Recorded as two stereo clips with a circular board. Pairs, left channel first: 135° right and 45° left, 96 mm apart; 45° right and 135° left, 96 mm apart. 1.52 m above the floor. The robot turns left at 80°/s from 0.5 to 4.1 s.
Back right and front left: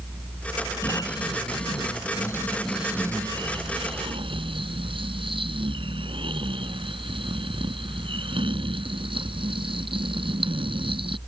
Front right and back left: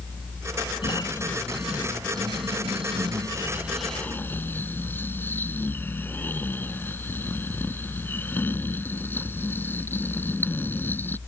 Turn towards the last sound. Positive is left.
turn(degrees=25)